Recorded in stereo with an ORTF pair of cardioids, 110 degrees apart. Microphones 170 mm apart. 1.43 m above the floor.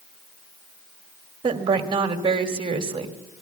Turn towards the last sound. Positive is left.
turn(degrees=-30)